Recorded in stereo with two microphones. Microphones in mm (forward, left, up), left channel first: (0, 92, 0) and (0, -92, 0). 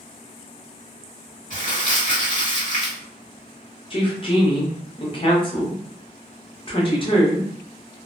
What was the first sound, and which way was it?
Crumpling, 50° left (ahead or behind).